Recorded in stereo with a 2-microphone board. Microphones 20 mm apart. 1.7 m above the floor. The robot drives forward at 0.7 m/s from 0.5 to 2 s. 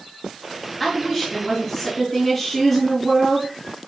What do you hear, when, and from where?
0.8 s a woman speaking: 5° left (ahead or behind), 1.7 m; by 3.5 s centre (ahead or behind), 2.5 m